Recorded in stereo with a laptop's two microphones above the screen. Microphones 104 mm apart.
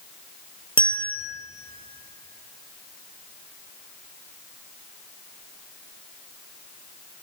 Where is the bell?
55° left (ahead or behind), 1.5 m.